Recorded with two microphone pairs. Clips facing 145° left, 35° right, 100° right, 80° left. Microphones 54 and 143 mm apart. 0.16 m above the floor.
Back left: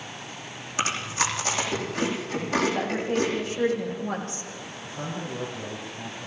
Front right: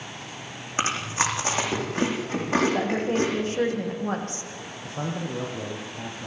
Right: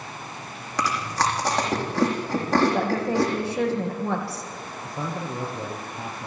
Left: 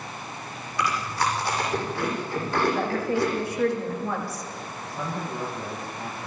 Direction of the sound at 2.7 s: 80° right.